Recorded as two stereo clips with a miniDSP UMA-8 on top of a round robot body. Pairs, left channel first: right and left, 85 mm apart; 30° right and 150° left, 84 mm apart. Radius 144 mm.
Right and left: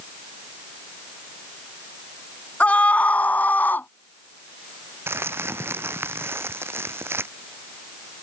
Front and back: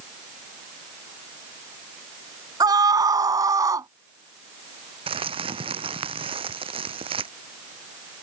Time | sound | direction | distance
2.6 | a scream | 165° right | ?
5.1 | crumpling | 155° left | ?